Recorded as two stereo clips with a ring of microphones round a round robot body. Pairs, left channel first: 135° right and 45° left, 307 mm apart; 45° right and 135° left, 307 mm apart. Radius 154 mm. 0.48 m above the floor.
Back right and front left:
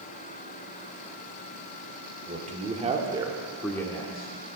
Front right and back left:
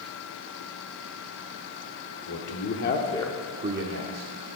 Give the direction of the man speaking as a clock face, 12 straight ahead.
1 o'clock.